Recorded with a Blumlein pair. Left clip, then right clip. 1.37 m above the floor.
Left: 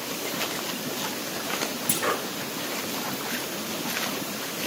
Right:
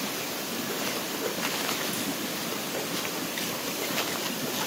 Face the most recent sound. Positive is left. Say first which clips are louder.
# left 5 dB
turn(degrees=50)